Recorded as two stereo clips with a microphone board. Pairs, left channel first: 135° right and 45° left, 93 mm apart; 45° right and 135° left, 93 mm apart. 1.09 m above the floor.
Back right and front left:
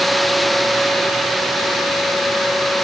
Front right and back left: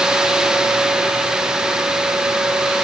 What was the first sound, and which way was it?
Only background noise.